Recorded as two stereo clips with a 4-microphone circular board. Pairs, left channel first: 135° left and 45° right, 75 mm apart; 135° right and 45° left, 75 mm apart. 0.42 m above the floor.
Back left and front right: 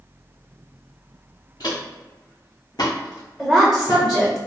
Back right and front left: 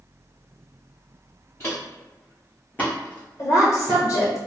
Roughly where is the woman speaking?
Behind right.